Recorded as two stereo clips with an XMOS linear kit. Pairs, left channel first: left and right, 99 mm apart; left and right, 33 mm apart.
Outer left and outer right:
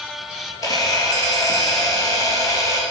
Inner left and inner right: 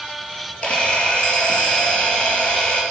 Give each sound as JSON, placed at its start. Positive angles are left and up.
{"t": 0.6, "sound": "a camera shutter", "side_deg": 40, "distance_m": 3.5}